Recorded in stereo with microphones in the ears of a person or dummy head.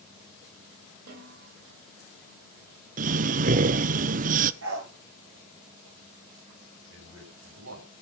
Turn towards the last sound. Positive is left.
turn(degrees=-90)